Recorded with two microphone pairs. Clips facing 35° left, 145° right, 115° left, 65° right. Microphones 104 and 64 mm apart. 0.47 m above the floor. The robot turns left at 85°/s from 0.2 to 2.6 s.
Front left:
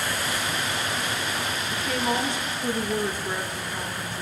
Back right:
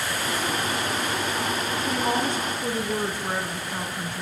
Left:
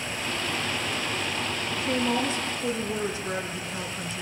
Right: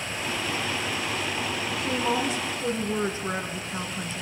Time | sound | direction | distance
1.7 | a woman speaking | 45° right | 4.5 m